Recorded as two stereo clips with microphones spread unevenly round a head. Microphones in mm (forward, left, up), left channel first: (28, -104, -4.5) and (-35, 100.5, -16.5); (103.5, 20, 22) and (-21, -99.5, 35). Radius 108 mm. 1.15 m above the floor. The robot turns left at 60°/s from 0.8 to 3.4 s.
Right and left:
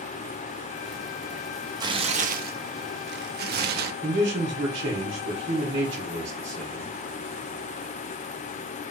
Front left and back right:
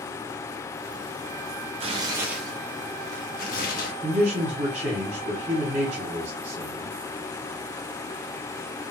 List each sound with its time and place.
1.8 s tearing paper: 175° left, 0.6 m; by 3.9 s 80° left, 0.6 m
4.0 s a man speaking: 165° left, 0.9 m